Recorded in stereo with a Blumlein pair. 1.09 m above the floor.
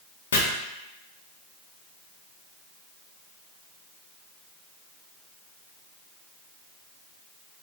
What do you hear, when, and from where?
0.3 s chopping: 65° left, 0.7 m